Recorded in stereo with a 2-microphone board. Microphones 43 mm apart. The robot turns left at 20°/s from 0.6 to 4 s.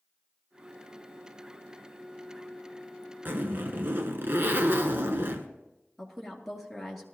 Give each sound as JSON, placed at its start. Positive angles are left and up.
{"t": 3.2, "sound": "a zipper", "side_deg": -45, "distance_m": 1.0}
{"t": 6.0, "sound": "a woman speaking", "side_deg": 5, "distance_m": 2.5}